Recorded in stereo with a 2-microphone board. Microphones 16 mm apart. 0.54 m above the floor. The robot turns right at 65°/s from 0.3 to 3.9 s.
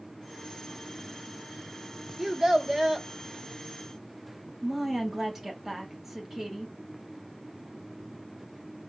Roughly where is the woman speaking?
Right.